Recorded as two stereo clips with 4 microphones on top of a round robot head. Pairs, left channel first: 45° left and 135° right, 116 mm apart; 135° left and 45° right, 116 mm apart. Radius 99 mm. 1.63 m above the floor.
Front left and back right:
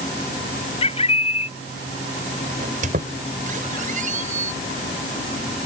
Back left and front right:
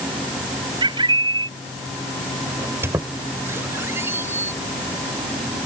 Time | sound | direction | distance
0.8 | a bird | 5° left | ?
2.6 | a squeak | 120° right | ?